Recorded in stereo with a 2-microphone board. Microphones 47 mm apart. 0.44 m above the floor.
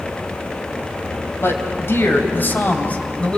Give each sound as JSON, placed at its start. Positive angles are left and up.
{"t": 1.4, "sound": "a man speaking", "side_deg": 65, "distance_m": 3.5}